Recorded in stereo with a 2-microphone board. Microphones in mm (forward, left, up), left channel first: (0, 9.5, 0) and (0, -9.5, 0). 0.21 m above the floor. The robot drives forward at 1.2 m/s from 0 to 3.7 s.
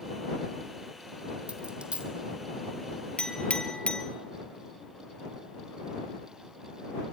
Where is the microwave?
I don't hear a microwave.